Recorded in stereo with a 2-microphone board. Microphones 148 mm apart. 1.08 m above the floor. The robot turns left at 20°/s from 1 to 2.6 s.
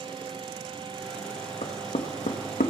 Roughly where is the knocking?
Left.